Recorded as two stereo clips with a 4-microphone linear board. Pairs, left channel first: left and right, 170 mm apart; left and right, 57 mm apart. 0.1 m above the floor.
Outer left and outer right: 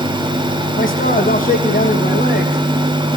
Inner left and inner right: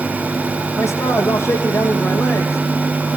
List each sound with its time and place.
0.8 s a man speaking: 50° left (ahead or behind), 4.5 m